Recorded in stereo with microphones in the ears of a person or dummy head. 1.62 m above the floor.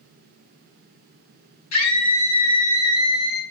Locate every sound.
1.7 s a scream: 85° left, 5 m